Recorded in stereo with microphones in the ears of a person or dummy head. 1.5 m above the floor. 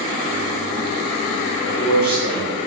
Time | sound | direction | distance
1.6 | a man speaking | 5° right (ahead or behind) | 1.5 m